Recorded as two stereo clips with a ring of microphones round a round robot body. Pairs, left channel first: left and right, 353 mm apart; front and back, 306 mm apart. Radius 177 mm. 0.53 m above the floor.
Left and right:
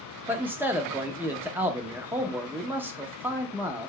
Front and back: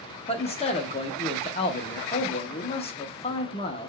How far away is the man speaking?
About 0.6 m.